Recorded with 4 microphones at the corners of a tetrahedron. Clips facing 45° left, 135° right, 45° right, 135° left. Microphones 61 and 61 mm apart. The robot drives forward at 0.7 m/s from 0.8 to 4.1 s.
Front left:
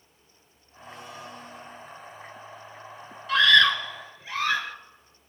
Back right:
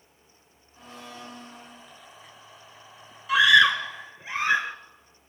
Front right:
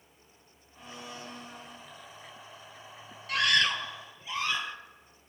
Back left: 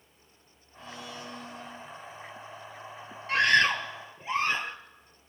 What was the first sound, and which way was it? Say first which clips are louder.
A blender: front left 1 dB, back left 2 dB; 115° right.